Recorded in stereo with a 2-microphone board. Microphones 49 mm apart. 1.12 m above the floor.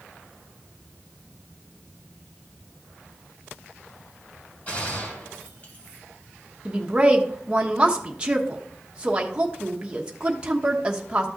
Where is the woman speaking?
20° right (ahead or behind), 1.2 m.